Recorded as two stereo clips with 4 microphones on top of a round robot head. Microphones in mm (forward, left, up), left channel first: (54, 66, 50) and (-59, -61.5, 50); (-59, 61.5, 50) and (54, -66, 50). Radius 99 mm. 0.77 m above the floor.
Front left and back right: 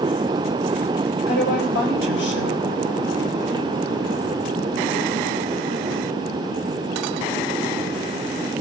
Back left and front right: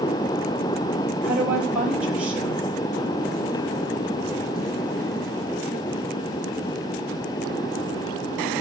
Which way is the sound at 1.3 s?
35° left.